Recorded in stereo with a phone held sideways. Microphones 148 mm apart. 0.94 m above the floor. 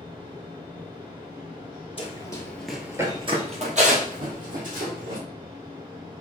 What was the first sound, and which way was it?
A fan, 30° right (ahead or behind).